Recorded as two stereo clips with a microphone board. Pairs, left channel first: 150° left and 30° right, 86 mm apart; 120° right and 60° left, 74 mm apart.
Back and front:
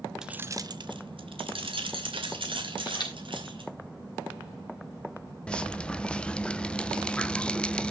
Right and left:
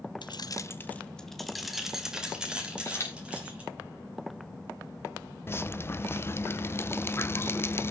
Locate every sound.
0.2 s keys jangling: 115° right, 0.9 m; by 3.7 s 15° right, 5 m
2.9 s a camera shutter: 175° right, 4.5 m
5.5 s dripping: 140° right, 0.7 m